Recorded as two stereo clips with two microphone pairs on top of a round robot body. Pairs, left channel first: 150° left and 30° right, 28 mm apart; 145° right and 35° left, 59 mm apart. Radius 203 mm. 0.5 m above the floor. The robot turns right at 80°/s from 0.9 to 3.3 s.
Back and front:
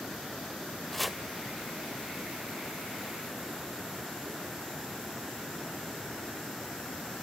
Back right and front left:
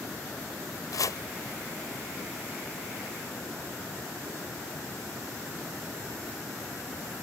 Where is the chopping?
130° right; by 1.2 s 105° right.